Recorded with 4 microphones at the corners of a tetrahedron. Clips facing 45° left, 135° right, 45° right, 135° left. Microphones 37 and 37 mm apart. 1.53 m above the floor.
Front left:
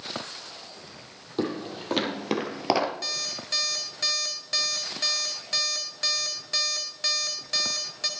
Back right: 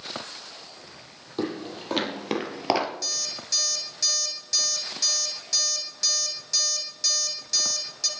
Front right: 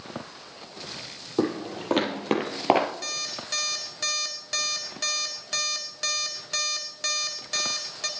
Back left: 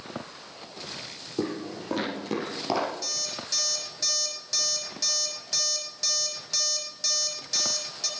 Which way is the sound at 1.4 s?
45° right.